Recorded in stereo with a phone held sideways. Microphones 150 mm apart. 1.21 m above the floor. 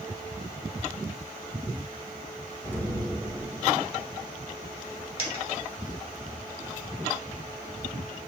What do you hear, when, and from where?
2.6 s an explosion: 10° left (ahead or behind), 1.5 m
5.2 s a dropped coin: 40° left (ahead or behind), 1.7 m